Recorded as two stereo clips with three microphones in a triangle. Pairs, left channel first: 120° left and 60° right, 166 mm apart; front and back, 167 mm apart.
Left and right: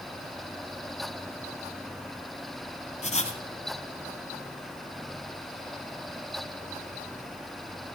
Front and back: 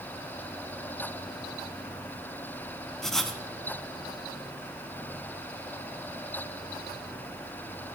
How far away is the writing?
About 1.1 m.